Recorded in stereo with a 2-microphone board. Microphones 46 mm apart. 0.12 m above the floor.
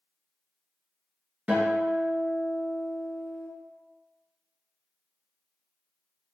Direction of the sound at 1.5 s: 25° right (ahead or behind).